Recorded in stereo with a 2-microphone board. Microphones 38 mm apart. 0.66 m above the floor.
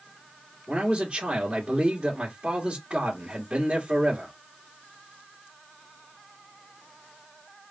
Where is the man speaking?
30° right (ahead or behind), 2 m.